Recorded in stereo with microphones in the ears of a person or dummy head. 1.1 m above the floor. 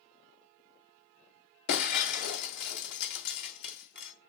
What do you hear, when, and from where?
1.7 s breaking glass: 60° left (ahead or behind), 2 m